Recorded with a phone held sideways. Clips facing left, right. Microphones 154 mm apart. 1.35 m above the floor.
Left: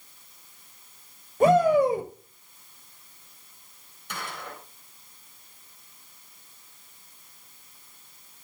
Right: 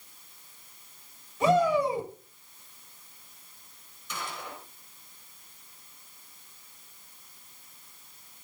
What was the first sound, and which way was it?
A shout, 50° left (ahead or behind).